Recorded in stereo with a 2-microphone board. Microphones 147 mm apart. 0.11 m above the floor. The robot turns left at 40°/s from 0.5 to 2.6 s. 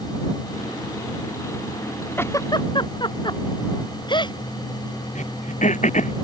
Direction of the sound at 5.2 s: 55° left (ahead or behind).